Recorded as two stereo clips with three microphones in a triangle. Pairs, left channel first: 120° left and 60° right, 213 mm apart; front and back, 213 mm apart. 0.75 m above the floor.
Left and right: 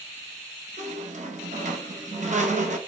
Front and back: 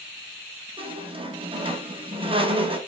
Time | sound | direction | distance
0.8 | a squeak | 110° right | 0.6 m